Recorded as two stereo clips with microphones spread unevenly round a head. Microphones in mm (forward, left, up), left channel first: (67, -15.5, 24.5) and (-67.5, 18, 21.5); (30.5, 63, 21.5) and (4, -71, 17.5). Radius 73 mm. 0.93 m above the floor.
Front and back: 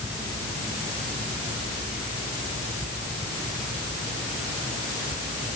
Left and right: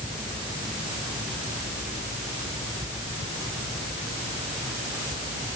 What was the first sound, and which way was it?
Only background noise.